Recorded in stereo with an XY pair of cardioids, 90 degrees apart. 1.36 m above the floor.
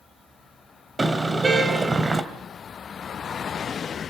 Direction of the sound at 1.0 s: 30° right.